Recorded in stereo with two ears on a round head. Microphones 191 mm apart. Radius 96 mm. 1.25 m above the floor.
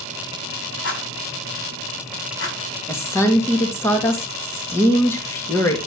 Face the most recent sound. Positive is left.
turn(degrees=10)  # may be behind; listen again after turning